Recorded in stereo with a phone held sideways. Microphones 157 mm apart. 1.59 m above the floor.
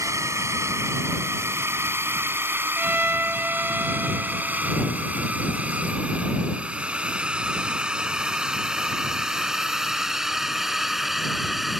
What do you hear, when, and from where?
0.0 s a drone: 20° right (ahead or behind); by 11.8 s centre (ahead or behind)
2.8 s a violin: 15° right (ahead or behind)